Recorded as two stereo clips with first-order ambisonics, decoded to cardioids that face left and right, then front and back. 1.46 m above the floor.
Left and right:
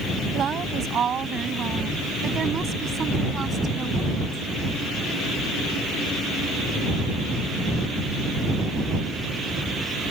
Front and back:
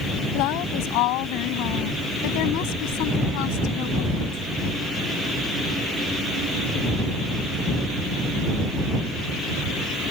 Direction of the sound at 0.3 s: 25° right.